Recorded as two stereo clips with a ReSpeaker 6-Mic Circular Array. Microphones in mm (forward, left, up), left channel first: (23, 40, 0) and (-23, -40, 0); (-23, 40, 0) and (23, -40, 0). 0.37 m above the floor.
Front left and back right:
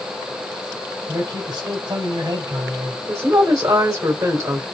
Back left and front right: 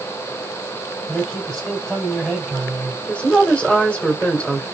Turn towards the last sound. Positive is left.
turn(degrees=-165)